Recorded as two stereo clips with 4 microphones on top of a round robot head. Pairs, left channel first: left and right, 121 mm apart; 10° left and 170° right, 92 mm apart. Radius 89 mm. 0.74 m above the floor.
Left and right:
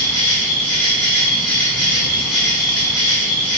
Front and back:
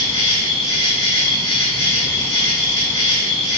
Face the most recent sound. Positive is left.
turn(degrees=15)